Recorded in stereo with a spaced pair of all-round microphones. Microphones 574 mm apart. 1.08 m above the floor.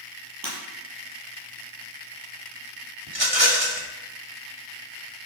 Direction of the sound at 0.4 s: 40° right (ahead or behind).